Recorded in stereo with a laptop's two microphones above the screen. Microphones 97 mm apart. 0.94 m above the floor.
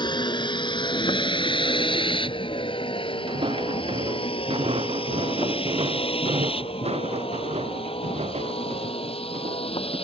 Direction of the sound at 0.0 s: 50° left (ahead or behind).